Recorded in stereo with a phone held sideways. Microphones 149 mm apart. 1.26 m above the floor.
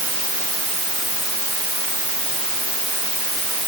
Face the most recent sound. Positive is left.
No sound to turn to.